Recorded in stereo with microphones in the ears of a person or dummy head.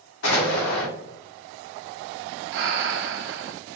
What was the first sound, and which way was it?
An explosion, 65° left (ahead or behind).